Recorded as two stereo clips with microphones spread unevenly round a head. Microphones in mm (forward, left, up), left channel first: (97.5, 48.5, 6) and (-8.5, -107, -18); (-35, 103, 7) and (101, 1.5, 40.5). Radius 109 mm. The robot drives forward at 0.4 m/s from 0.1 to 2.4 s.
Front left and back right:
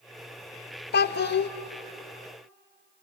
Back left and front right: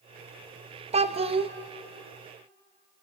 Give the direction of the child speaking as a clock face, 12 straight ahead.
11 o'clock.